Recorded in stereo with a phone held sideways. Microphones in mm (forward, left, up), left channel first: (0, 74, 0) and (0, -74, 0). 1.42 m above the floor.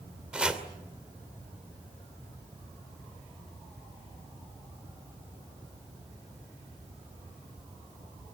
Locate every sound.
0.3 s chopping: 5° right (ahead or behind), 2.5 m